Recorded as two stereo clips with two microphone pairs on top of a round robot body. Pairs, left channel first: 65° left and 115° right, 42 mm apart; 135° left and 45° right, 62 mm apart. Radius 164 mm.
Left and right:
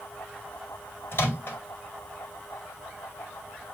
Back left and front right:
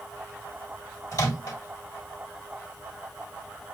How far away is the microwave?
About 1.9 m.